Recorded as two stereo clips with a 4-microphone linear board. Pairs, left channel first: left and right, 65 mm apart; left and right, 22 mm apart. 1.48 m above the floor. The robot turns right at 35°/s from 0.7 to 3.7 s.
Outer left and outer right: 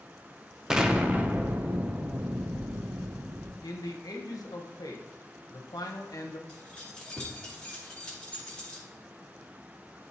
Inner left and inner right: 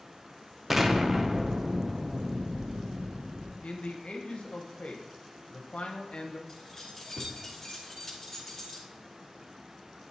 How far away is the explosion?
About 0.6 m.